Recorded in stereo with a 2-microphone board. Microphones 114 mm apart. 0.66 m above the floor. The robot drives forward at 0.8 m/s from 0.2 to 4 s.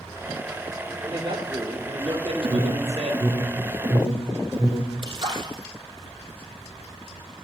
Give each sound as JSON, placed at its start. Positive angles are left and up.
{"t": 1.0, "sound": "a man speaking", "side_deg": -35, "distance_m": 1.8}
{"t": 2.4, "sound": "an alarm", "side_deg": -50, "distance_m": 0.7}
{"t": 5.0, "sound": "a splash", "side_deg": -45, "distance_m": 3.0}